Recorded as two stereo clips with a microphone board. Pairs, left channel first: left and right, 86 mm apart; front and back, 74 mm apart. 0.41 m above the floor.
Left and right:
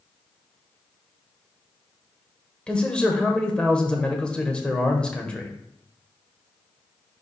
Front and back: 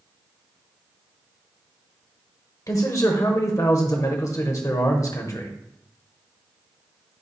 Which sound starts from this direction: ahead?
A man speaking, at 2.7 s.